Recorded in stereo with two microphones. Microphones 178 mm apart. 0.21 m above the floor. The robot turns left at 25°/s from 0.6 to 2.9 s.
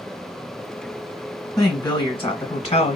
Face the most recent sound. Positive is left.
turn(degrees=115)